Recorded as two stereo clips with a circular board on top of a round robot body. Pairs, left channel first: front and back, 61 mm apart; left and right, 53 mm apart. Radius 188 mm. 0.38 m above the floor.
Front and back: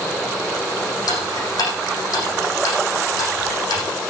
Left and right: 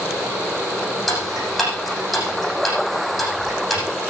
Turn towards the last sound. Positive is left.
turn(degrees=0)